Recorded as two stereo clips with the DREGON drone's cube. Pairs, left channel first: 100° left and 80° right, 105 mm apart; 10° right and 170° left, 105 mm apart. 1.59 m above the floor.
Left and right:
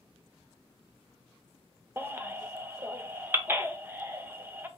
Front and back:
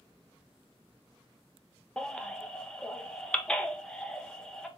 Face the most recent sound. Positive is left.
turn(degrees=-75)